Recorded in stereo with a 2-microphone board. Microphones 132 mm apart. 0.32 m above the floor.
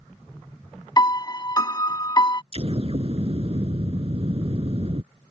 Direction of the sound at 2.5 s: 45° right (ahead or behind).